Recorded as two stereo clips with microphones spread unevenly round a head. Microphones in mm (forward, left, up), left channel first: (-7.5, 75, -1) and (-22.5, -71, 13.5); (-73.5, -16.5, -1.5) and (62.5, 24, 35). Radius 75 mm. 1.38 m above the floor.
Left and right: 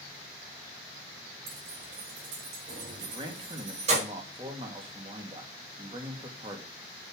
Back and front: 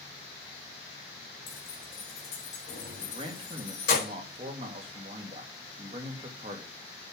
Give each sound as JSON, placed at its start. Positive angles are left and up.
{"t": 1.5, "sound": "keys jangling", "azimuth_deg": -105, "distance_m": 5.0}
{"t": 3.0, "sound": "a man speaking", "azimuth_deg": -35, "distance_m": 2.5}